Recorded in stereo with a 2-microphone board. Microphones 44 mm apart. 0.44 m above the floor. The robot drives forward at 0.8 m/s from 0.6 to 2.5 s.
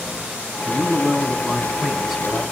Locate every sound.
0.6 s a man speaking: 10° right (ahead or behind), 5 m; by 2.4 s 15° right (ahead or behind), 3.5 m